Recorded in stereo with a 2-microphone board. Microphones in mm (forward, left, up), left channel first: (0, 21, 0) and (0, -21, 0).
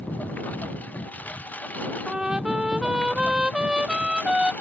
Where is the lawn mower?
45° left (ahead or behind).